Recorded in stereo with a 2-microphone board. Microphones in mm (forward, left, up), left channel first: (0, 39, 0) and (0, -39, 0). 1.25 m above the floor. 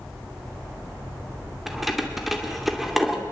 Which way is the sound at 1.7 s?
Centre (ahead or behind).